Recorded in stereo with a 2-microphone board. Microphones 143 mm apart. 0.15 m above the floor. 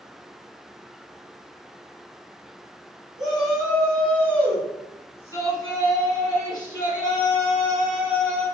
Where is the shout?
5° right (ahead or behind), 1.4 m; by 8.4 s 30° left (ahead or behind), 3 m.